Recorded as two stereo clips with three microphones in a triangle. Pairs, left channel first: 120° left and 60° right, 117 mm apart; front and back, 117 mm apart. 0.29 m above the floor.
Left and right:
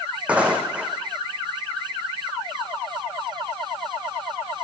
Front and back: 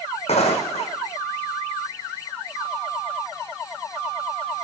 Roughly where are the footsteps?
Ahead.